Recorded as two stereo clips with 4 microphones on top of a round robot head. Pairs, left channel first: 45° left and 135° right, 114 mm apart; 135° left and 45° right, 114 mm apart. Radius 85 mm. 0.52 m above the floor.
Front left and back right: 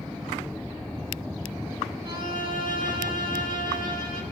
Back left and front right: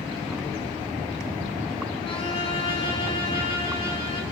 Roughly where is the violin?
Behind.